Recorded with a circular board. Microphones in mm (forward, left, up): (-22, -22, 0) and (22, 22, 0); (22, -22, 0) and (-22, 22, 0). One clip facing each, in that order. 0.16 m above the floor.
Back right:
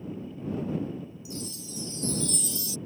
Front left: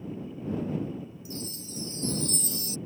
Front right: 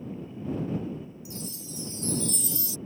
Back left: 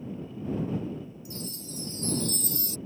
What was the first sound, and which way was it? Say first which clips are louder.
A chime: even, even; 95° left.